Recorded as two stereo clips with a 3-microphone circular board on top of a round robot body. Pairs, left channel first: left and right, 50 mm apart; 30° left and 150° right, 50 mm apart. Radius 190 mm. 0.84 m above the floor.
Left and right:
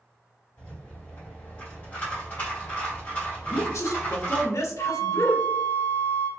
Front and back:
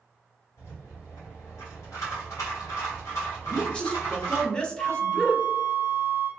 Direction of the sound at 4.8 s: 55° left.